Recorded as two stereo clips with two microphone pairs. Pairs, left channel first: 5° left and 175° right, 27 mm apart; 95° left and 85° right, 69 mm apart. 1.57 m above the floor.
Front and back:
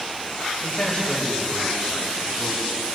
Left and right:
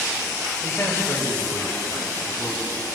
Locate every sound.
0.6 s a man speaking: 45° left, 7 m; by 2.8 s 40° left, 10 m